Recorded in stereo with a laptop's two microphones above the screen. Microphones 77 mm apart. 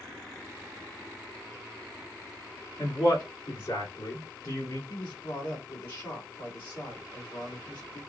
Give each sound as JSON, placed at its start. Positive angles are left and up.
{"t": 2.8, "sound": "a man speaking", "side_deg": 75, "distance_m": 1.7}
{"t": 4.9, "sound": "a man speaking", "side_deg": 75, "distance_m": 2.0}